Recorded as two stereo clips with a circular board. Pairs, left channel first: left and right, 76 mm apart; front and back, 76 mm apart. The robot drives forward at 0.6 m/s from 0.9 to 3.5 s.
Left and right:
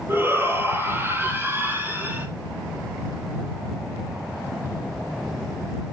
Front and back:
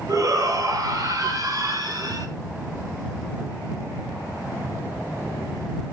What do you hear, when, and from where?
0.1 s a shout: 145° right, 3.5 m; by 2.3 s 155° right, 4.5 m